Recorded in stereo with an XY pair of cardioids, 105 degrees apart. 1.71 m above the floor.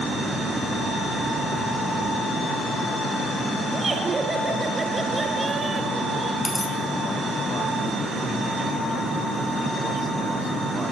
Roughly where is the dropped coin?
Ahead.